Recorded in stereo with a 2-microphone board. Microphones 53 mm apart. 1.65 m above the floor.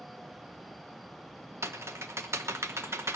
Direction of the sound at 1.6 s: 55° right (ahead or behind).